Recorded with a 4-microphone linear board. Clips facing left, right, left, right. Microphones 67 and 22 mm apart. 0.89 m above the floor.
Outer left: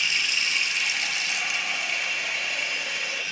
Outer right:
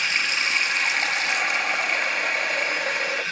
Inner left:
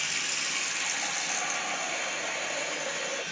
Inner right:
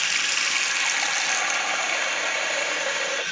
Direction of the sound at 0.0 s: 45° right (ahead or behind).